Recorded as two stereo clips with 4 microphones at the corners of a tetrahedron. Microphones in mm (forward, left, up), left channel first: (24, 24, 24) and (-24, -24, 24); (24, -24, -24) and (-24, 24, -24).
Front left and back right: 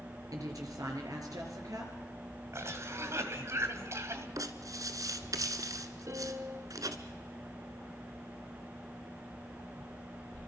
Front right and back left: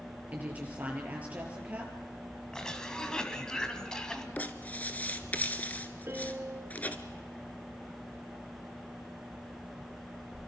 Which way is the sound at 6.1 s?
175° right.